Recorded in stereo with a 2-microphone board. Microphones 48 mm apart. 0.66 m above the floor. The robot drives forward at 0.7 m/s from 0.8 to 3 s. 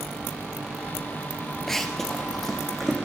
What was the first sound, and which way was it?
Running footsteps, 10° left (ahead or behind).